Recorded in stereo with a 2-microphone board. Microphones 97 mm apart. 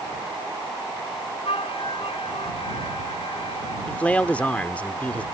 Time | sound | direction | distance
1.4 | a flute | 75° left (ahead or behind) | ?
3.9 | a man speaking | 15° left (ahead or behind) | ?